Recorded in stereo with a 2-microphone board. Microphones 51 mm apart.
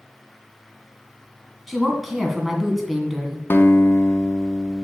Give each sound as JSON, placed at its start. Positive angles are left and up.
{"t": 1.7, "sound": "a woman speaking", "side_deg": -5, "distance_m": 2.0}
{"t": 3.5, "sound": "a guitar", "side_deg": 45, "distance_m": 0.9}